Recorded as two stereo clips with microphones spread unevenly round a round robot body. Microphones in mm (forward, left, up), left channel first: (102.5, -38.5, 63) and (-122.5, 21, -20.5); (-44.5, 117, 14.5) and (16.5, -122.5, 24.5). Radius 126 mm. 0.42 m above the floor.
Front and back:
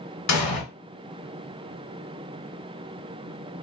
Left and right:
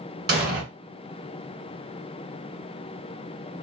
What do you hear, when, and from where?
0.3 s an explosion: 5° right, 1.5 m